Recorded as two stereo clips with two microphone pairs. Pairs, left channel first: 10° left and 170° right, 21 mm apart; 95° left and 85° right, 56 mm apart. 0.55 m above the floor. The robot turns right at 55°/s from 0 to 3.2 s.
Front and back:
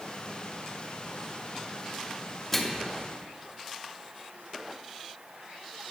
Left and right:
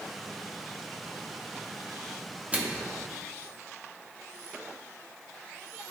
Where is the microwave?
55° right, 0.6 m; by 2.9 s 35° right, 0.6 m.